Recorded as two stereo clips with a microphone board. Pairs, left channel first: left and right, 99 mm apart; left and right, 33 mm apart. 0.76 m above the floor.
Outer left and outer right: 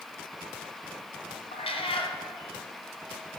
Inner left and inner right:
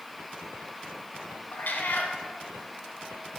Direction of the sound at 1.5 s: 75° left (ahead or behind).